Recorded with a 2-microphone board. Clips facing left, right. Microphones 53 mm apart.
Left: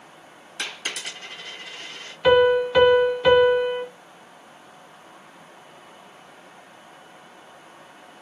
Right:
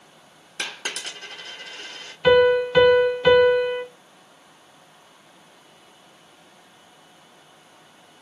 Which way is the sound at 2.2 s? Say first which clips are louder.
Right 1 dB; centre (ahead or behind).